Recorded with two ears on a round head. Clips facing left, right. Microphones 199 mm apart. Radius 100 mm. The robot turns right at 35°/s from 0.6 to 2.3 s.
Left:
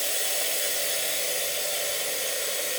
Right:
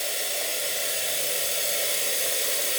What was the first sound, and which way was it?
Running water, 170° left.